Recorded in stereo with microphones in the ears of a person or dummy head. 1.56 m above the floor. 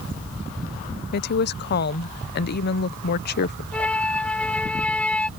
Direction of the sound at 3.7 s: 5° left (ahead or behind).